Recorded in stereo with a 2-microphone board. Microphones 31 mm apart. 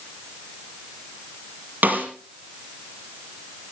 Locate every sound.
1.8 s a snare drum: 70° right (ahead or behind), 4.5 m